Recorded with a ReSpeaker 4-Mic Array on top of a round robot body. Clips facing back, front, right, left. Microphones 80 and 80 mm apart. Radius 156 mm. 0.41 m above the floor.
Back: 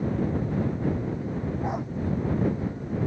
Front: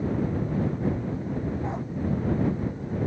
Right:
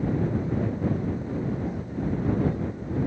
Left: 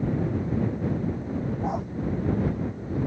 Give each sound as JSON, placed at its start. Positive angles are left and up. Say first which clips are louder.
{"t": 1.6, "sound": "a dog barking", "louder": "back 2 dB, left 3 dB", "azimuth_deg": 105}